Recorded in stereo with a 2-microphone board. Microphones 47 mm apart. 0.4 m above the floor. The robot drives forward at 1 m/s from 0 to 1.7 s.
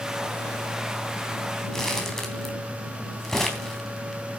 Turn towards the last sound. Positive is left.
turn(degrees=10)  # may be behind; listen again after turning